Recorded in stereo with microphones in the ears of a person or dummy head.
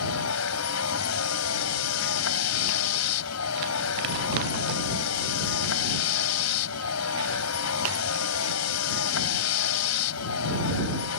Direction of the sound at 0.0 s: 80° left.